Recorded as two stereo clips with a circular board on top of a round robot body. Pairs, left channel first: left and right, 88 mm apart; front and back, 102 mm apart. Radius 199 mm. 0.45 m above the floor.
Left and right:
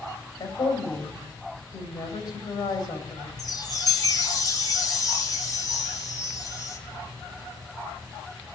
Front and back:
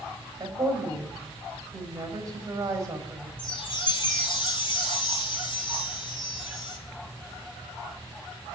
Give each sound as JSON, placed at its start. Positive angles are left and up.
{"t": 0.4, "sound": "a woman speaking", "azimuth_deg": 125, "distance_m": 4.0}
{"t": 3.4, "sound": "a chime", "azimuth_deg": 45, "distance_m": 3.0}